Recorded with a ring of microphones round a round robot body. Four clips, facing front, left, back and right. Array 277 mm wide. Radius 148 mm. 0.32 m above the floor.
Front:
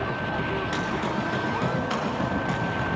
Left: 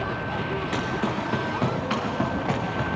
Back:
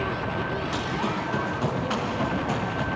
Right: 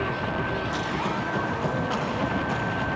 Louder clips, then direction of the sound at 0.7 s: Left 1 dB, even; 80° left.